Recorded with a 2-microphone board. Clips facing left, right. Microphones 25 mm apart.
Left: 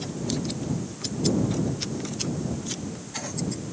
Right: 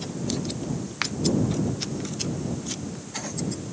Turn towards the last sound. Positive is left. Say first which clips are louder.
# right 6 dB
turn(degrees=-80)